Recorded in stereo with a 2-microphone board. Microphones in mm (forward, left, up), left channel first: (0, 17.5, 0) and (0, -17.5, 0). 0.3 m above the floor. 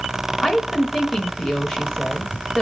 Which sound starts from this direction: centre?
A woman speaking, at 0.4 s.